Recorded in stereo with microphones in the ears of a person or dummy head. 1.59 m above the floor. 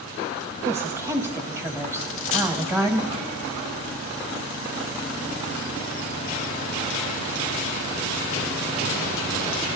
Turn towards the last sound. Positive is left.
turn(degrees=30)  # may be behind; listen again after turning